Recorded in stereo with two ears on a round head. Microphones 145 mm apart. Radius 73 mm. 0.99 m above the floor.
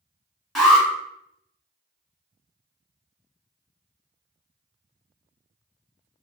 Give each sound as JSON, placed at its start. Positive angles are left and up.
{"t": 0.6, "sound": "an alarm", "side_deg": 0, "distance_m": 1.9}